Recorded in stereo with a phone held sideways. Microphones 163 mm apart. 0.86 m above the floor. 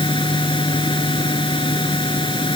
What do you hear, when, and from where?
0.0 s a fan: 30° left (ahead or behind)